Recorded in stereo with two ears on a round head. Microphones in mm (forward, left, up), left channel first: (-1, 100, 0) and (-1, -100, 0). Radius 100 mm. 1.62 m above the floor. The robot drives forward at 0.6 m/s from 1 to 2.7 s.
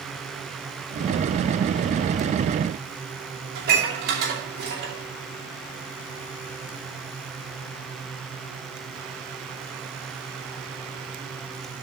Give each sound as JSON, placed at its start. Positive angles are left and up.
{"t": 3.5, "sound": "dishes clattering", "side_deg": -45, "distance_m": 2.5}